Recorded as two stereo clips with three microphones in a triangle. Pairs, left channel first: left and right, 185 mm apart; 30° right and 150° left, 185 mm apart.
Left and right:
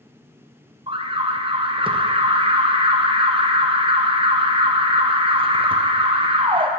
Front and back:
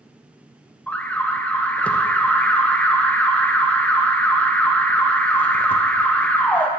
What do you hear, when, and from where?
0.9 s an alarm: 105° right, 0.8 m